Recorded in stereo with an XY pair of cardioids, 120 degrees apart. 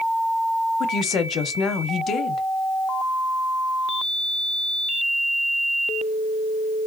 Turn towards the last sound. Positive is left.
turn(degrees=55)